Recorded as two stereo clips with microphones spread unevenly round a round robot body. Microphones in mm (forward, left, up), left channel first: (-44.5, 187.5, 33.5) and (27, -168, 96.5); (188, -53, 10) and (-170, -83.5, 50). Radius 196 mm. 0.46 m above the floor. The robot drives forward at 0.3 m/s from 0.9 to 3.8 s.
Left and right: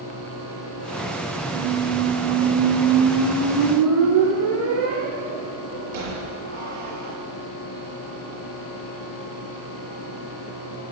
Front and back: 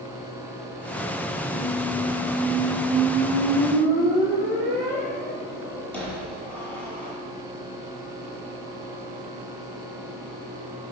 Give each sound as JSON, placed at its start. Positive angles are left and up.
{"t": 1.5, "sound": "a squeak", "azimuth_deg": -75, "distance_m": 6.0}